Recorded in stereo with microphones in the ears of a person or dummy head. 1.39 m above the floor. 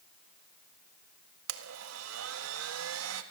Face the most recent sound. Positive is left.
turn(degrees=-80)